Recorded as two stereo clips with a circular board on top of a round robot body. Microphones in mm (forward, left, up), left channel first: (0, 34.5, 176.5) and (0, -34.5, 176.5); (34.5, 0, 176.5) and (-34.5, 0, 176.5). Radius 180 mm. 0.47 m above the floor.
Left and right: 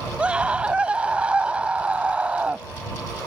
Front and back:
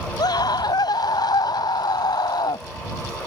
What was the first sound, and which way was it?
A scream, 15° right.